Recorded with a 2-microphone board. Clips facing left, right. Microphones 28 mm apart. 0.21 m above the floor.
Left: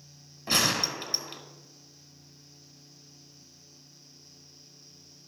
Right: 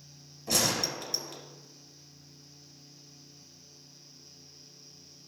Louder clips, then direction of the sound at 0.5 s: Left 3 dB; 45° left (ahead or behind).